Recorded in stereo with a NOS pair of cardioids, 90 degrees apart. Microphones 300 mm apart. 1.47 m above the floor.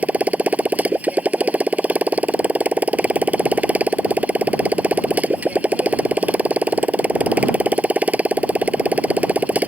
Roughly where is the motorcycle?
Ahead.